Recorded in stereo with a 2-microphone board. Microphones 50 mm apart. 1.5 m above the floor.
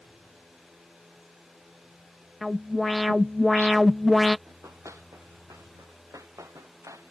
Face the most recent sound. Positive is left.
turn(degrees=-85)